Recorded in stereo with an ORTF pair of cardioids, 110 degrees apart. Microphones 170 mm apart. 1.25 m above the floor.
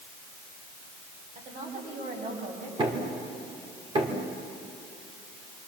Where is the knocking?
30° right, 3.5 m.